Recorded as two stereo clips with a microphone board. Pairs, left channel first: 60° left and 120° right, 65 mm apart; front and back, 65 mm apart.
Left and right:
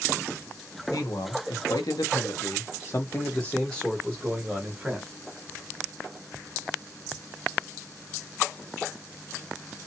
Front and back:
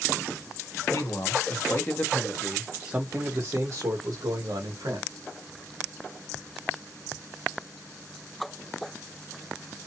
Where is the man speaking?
40° left, 1.1 m; by 5.1 s 165° left, 1.4 m.